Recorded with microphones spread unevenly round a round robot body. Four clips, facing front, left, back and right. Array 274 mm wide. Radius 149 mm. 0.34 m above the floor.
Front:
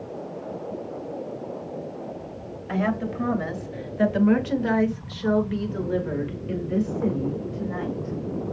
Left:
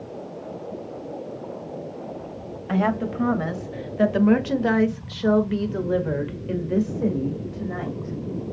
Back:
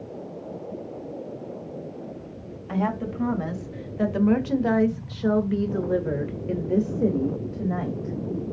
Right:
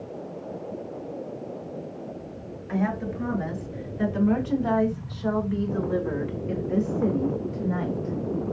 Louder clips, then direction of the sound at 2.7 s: Left 4 dB, front 1 dB; 60° left.